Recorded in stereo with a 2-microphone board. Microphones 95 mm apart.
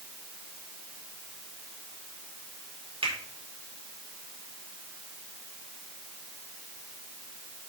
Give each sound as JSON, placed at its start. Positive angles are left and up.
{"t": 3.0, "sound": "a finger snap", "side_deg": -75, "distance_m": 4.5}